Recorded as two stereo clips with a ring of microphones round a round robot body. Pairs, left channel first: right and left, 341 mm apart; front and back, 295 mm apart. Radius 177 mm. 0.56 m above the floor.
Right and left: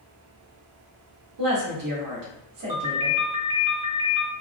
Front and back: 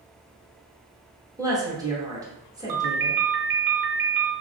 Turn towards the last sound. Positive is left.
turn(degrees=165)